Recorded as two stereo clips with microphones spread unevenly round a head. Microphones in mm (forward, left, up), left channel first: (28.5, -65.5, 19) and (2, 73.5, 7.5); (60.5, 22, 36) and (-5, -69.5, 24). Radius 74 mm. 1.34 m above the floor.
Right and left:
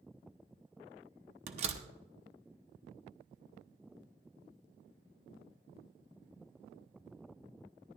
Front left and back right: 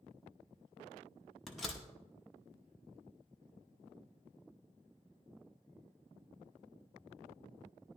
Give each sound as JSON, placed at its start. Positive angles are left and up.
{"t": 1.5, "sound": "a door slam", "azimuth_deg": 140, "distance_m": 0.8}